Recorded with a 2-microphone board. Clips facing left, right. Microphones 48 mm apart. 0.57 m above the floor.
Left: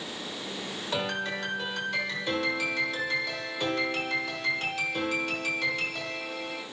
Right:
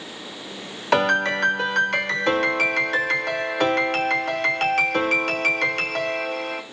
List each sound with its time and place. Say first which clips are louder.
0.9 s a piano: right 13 dB; 70° right (ahead or behind), 1.2 m